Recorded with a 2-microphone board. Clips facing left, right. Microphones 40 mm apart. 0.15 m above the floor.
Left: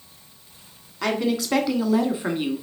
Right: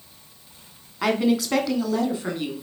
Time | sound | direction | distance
1.0 | a woman speaking | 10° right (ahead or behind) | 1.1 m